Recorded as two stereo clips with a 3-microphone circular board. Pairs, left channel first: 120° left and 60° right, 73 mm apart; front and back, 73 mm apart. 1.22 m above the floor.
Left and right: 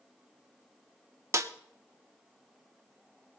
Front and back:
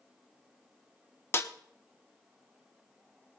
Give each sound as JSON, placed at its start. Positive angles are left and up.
{"t": 1.3, "sound": "a snare drum", "azimuth_deg": -35, "distance_m": 0.9}